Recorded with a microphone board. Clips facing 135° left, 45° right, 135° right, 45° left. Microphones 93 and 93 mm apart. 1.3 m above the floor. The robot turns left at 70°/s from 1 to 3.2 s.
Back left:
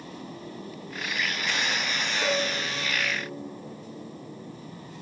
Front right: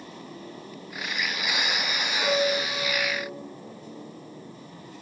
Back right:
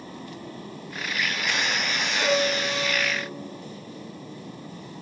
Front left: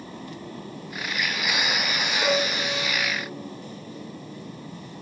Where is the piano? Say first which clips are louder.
Front right 5 dB, back right 2 dB; 165° right, 1.9 m; by 3.3 s 120° left, 1.9 m.